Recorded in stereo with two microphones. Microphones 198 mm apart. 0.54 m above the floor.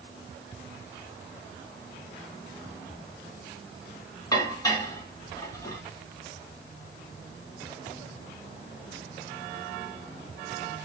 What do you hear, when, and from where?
4.3 s dishes clattering: 20° left (ahead or behind), 2 m